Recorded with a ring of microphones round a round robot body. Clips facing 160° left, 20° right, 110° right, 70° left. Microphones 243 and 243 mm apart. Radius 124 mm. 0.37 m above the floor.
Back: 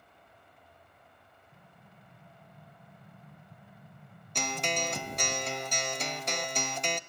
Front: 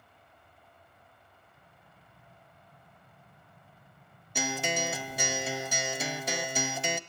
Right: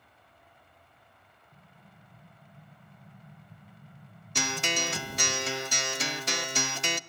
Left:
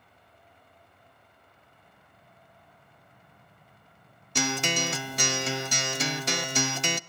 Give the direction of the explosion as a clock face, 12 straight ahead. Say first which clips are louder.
Back 3 dB, right 3 dB; 5 o'clock.